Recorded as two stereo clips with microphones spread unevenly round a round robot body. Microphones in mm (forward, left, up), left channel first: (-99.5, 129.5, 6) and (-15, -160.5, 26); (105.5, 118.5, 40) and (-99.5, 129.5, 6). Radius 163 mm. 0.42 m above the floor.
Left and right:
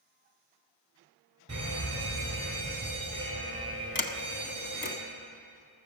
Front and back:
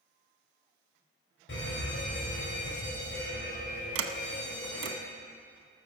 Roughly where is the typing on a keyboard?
I don't hear typing on a keyboard.